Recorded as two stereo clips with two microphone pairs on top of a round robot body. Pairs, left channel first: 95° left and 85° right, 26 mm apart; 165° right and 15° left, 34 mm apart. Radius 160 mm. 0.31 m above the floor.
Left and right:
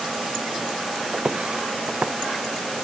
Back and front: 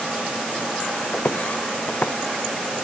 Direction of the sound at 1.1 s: 125° right.